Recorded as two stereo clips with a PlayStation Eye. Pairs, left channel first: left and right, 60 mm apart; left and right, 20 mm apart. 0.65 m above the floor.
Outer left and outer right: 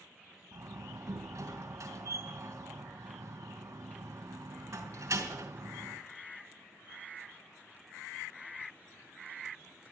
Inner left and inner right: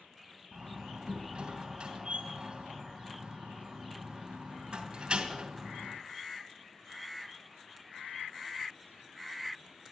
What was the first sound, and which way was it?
A door slam, 70° right (ahead or behind).